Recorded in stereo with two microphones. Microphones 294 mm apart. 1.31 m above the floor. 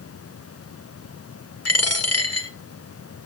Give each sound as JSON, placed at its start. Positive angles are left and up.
{"t": 1.6, "sound": "a dropped coin", "side_deg": 55, "distance_m": 1.2}